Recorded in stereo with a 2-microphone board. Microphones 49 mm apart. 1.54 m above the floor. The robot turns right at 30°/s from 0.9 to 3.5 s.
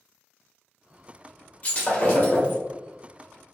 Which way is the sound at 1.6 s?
35° left (ahead or behind).